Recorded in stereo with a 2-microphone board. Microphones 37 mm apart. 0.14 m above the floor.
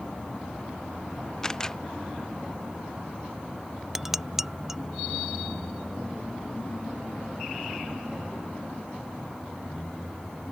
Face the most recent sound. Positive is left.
turn(degrees=-5)  # may be behind; listen again after turning